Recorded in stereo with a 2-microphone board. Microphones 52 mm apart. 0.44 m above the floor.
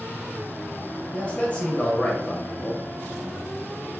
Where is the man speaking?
25° left (ahead or behind), 1.4 m.